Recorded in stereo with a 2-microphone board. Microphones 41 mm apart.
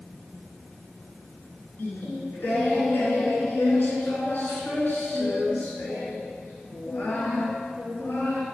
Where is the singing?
55° left (ahead or behind), 1.6 m.